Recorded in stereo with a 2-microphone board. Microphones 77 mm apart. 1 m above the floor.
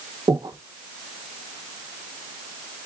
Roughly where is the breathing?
Right.